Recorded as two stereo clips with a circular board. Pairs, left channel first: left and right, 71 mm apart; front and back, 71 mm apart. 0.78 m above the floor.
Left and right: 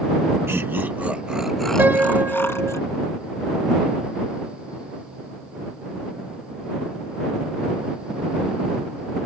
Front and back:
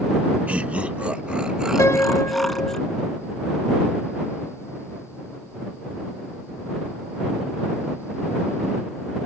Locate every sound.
0.5 s laughter: 120° right; by 2.8 s 85° left
1.8 s a piano: 35° right